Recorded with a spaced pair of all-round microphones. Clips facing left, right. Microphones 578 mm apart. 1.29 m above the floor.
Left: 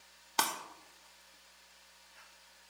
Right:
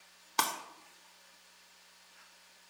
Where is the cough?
No cough in this recording.